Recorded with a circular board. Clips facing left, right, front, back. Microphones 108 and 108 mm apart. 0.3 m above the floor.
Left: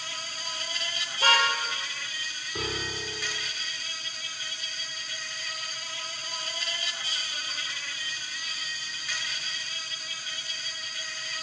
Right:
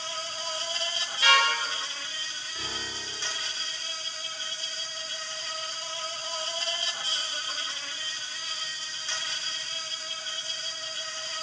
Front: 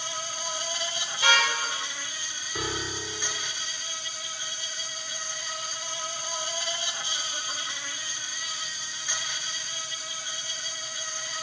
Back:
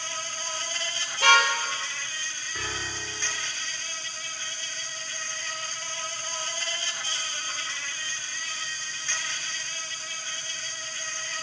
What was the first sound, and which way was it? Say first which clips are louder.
An insect: right 4 dB, front 1 dB; 60° right.